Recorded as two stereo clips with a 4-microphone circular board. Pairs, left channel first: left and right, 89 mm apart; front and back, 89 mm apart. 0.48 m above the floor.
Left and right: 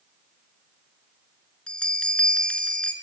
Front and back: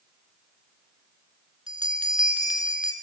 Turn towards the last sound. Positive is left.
turn(degrees=170)